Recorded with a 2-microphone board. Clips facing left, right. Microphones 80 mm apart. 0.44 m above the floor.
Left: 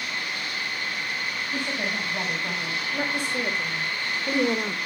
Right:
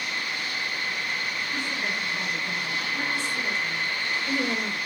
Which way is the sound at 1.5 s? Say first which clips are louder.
Left 3 dB; 55° left (ahead or behind).